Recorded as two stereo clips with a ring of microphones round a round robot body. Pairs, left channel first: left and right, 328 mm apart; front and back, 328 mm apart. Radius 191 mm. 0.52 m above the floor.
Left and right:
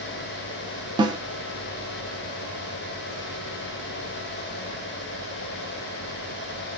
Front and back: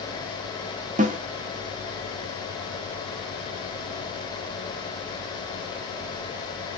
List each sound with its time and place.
1.0 s a snare drum: 150° right, 0.8 m